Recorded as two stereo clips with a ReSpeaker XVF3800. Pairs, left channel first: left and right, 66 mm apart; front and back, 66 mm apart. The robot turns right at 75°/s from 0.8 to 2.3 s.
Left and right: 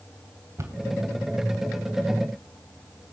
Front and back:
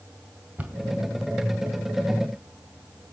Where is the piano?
No piano in this recording.